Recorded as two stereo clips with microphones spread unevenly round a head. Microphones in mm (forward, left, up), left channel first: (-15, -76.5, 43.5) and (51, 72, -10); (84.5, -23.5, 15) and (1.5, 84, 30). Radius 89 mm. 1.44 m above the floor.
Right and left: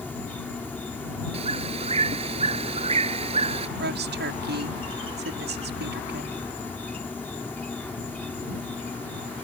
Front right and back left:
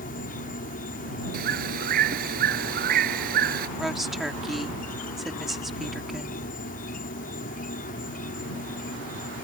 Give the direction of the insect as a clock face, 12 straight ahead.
1 o'clock.